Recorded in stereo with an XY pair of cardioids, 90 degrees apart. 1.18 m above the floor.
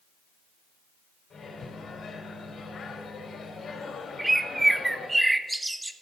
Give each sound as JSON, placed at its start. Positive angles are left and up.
{"t": 1.3, "sound": "a microwave", "azimuth_deg": 70, "distance_m": 3.5}
{"t": 4.2, "sound": "a bird", "azimuth_deg": -15, "distance_m": 0.8}